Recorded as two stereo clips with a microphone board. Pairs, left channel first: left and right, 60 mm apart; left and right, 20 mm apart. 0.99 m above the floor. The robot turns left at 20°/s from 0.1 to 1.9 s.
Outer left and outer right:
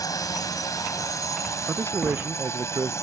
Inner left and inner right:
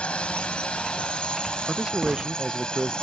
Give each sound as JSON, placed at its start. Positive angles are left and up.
{"t": 0.0, "sound": "a drone", "azimuth_deg": 90}
{"t": 1.7, "sound": "a man speaking", "side_deg": -40}